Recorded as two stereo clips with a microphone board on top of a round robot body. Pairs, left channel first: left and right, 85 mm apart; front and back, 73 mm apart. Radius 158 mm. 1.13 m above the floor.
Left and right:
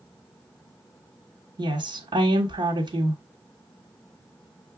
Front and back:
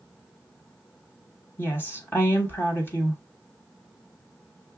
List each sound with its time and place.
1.6 s a woman speaking: 60° right, 1.4 m